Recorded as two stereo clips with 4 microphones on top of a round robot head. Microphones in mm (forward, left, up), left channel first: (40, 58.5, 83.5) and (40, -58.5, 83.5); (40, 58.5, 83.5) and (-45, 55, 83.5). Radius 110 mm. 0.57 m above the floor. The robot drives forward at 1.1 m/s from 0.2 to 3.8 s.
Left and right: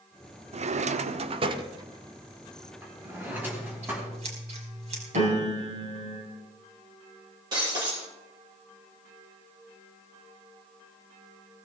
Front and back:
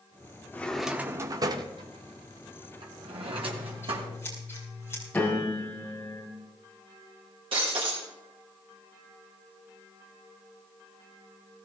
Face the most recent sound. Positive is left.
turn(degrees=-150)